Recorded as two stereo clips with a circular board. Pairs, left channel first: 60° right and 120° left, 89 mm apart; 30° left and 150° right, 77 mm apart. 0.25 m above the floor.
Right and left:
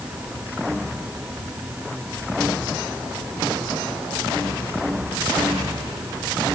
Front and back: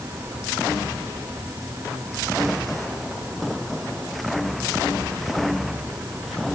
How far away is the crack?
No crack in this recording.